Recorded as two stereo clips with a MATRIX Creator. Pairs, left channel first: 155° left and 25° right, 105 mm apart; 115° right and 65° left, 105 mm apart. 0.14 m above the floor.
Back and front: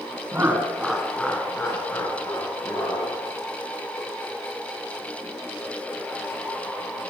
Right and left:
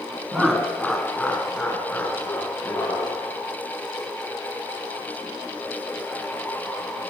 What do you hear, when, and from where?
0.3 s laughter: 15° right, 1.0 m; by 3.2 s 175° right, 1.7 m